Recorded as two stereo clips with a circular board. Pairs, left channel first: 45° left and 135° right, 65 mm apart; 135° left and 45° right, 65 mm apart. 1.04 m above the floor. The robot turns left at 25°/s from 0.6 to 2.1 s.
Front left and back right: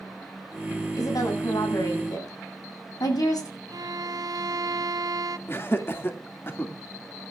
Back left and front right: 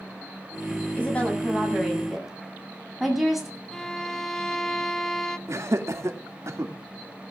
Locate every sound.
1.0 s a woman speaking: 70° left, 8 m; by 3.5 s 40° left, 8 m
3.7 s a violin: 145° right, 0.9 m
5.5 s laughter: 5° right, 2.5 m